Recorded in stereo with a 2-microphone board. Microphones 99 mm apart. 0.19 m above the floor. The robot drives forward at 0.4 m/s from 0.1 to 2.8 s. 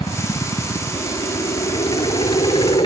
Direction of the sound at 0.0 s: 55° left (ahead or behind).